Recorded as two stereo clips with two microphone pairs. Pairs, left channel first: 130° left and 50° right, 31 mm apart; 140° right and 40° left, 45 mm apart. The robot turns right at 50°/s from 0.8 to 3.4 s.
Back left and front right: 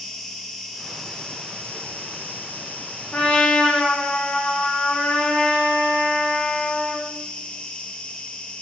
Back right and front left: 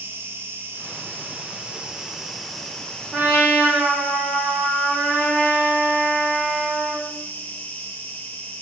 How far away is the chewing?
No chewing in this recording.